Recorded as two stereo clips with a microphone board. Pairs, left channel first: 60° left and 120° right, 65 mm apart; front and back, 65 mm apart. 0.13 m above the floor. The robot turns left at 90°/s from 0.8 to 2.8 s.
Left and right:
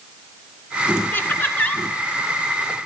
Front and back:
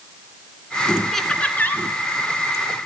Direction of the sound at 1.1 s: 85° left.